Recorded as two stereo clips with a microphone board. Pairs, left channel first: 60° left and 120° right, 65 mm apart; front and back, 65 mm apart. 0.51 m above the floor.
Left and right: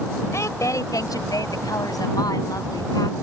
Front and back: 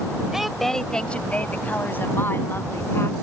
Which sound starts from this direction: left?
A woman speaking, at 0.3 s.